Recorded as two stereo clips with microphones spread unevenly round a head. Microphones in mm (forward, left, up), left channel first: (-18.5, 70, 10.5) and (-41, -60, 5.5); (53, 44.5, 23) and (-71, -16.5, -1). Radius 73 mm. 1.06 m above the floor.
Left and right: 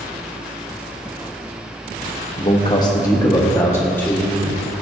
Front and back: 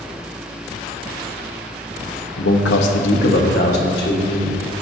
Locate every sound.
2.4 s a man speaking: 20° left, 1.0 m; by 4.6 s straight ahead, 2 m